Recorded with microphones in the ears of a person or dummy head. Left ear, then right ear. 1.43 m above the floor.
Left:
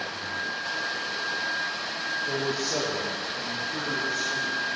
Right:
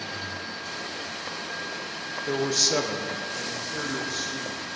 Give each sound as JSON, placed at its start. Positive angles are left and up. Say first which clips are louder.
{"t": 2.3, "sound": "a man speaking", "louder": "right 4 dB", "side_deg": -80, "distance_m": 0.7}